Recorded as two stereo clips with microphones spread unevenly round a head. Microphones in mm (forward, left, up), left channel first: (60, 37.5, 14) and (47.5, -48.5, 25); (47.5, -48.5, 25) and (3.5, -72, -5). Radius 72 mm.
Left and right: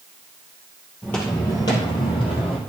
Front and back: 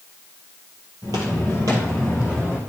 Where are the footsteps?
160° left, 1.7 m; by 2.6 s 115° left, 2 m.